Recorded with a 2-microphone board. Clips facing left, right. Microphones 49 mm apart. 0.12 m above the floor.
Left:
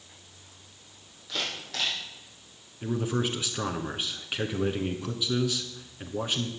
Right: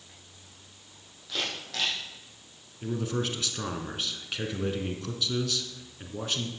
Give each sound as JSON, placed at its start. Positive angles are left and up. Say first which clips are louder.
{"t": 1.3, "sound": "a camera shutter", "louder": "even", "side_deg": 0, "distance_m": 6.5}
{"t": 2.8, "sound": "a man speaking", "louder": "left 2 dB", "side_deg": 15, "distance_m": 1.0}